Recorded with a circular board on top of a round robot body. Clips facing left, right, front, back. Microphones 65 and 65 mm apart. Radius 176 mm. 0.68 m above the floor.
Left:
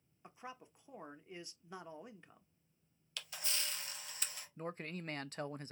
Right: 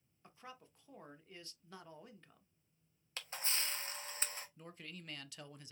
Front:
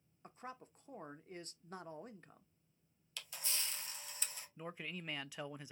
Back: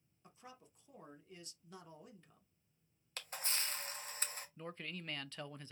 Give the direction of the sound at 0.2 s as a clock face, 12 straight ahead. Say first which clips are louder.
Left 4 dB, front 7 dB; 11 o'clock.